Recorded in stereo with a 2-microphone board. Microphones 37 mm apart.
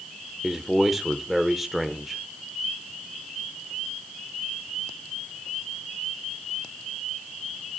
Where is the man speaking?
5° right (ahead or behind), 1.1 m.